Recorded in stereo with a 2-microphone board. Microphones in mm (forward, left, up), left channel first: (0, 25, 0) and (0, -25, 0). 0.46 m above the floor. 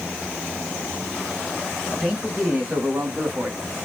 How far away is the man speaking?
About 3 m.